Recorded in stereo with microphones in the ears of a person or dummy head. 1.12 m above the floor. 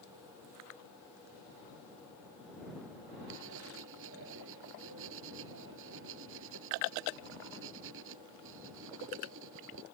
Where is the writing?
75° right (ahead or behind).